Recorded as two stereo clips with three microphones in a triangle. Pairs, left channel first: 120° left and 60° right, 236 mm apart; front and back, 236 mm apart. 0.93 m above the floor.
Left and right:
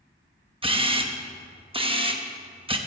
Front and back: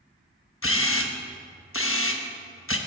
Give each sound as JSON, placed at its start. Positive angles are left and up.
{"t": 0.6, "sound": "a camera shutter", "azimuth_deg": 5, "distance_m": 1.0}